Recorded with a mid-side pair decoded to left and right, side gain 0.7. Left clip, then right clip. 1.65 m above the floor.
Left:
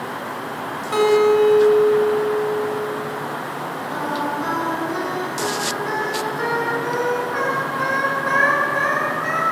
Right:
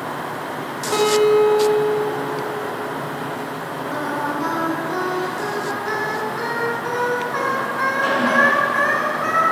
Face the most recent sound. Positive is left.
turn(degrees=-35)